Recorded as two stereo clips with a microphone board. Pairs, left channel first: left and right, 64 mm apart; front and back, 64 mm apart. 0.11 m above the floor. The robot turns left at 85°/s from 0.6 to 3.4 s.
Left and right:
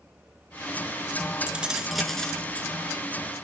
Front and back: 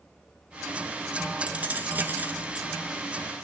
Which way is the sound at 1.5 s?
135° right.